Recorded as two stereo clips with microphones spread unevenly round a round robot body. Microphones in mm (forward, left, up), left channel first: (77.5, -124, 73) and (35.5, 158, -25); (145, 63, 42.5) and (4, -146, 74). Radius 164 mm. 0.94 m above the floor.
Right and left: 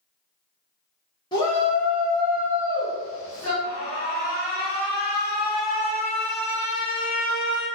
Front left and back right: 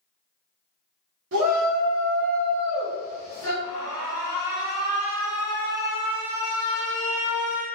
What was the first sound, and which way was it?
A shout, 165° right.